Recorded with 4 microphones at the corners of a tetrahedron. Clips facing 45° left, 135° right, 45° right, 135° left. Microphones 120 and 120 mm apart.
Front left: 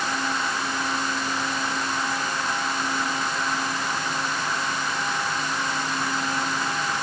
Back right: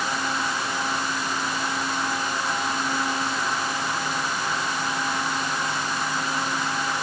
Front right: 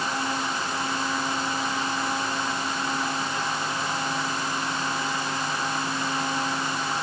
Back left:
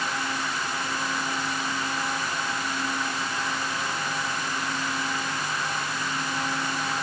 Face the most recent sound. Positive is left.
No sound to turn to.